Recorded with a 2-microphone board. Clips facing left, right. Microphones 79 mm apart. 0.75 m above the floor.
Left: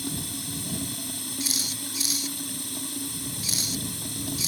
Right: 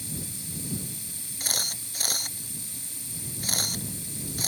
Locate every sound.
0.0 s running water: 65° left (ahead or behind)
1.4 s a camera shutter: 50° right (ahead or behind)